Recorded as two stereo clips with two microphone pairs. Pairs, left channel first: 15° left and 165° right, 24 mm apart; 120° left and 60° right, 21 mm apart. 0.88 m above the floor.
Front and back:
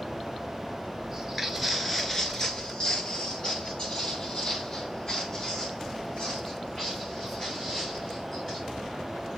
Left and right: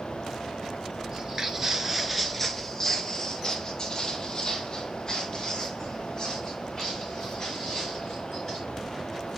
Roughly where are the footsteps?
Right.